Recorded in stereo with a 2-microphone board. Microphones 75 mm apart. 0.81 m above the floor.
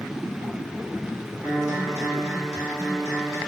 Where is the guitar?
45° right (ahead or behind), 1.6 m.